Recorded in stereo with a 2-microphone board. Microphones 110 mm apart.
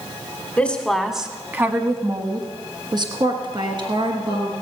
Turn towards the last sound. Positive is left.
turn(degrees=-45)  # may be behind; listen again after turning